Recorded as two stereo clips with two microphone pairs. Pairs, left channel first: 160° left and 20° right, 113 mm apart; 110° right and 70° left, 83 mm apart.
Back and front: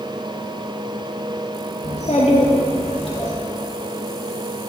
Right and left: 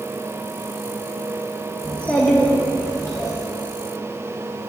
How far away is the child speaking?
About 0.9 m.